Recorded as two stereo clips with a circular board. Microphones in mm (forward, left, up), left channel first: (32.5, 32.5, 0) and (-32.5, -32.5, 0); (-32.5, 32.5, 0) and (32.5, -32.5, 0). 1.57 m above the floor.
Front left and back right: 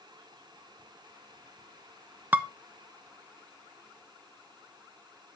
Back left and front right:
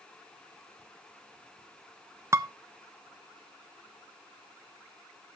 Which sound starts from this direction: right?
Dishes clattering, at 2.3 s.